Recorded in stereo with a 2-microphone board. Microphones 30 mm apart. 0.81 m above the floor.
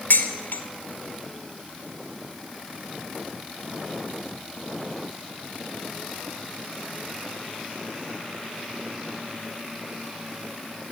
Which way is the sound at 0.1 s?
65° left (ahead or behind).